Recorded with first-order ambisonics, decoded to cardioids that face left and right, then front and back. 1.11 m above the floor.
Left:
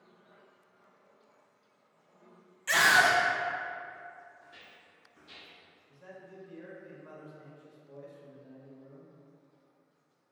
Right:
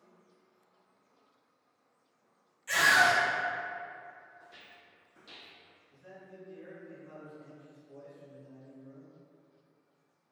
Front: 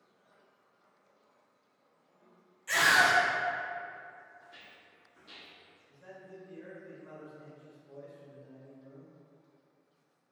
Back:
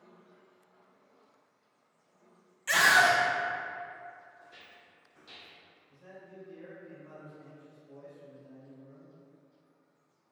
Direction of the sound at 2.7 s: 135° left.